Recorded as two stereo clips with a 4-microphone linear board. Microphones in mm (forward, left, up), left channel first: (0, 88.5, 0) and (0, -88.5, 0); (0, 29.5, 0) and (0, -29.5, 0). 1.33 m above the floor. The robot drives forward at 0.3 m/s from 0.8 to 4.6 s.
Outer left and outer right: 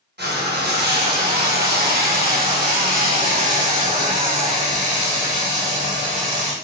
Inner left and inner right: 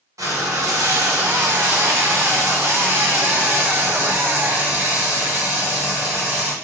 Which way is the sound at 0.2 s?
70° right (ahead or behind).